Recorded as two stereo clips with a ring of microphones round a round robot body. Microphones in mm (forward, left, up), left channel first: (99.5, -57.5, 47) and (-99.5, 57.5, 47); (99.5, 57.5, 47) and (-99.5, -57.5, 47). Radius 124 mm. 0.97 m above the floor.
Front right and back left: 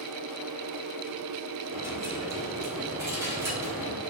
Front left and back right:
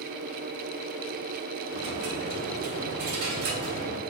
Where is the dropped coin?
130° right, 3 m.